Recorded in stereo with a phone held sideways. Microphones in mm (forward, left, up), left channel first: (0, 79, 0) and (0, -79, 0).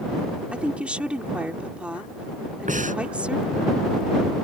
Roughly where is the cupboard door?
I don't hear a cupboard door.